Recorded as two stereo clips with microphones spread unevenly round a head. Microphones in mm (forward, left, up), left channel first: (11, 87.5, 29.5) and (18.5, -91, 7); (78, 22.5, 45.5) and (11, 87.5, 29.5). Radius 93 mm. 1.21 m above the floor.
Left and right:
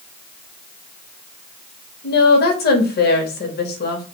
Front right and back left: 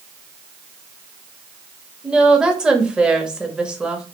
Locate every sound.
2.0 s a woman speaking: 55° left, 1.0 m